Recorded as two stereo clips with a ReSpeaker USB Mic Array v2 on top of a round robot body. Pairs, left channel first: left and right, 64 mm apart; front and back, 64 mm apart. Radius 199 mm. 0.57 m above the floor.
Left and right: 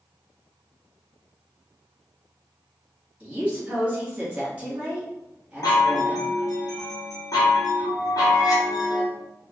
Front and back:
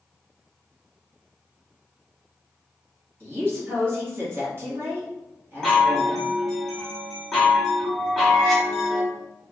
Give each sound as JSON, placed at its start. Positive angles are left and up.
{"t": 3.2, "sound": "a woman speaking", "azimuth_deg": -150, "distance_m": 1.6}
{"t": 5.6, "sound": "a chime", "azimuth_deg": 85, "distance_m": 0.9}